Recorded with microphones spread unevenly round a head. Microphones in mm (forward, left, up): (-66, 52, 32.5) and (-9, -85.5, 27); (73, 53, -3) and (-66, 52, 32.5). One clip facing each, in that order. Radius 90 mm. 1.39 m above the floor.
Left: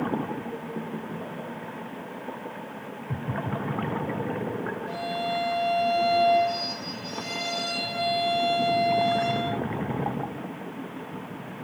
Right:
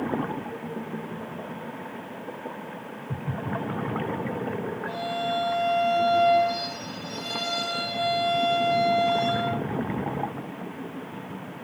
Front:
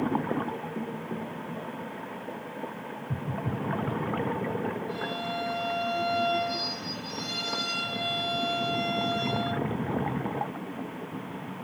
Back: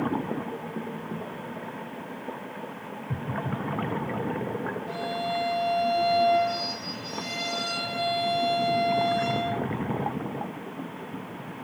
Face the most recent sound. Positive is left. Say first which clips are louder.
# right 1 dB, back 3 dB
turn(degrees=-165)